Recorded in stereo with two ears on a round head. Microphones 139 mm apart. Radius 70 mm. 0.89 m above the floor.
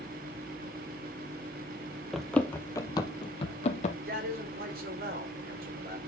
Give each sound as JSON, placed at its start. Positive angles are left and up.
{"t": 2.1, "sound": "running footsteps", "side_deg": 0, "distance_m": 1.0}
{"t": 4.1, "sound": "a man speaking", "side_deg": -65, "distance_m": 3.5}